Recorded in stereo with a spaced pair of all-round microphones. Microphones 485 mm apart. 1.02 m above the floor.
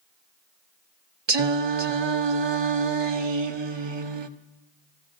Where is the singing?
60° right (ahead or behind), 0.7 m.